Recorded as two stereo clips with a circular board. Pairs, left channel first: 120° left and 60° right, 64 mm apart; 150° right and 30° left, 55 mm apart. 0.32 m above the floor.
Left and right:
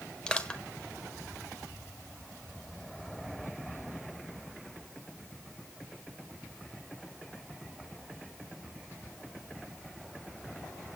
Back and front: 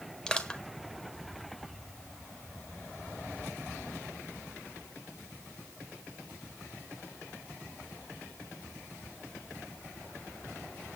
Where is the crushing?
170° left, 1.2 m.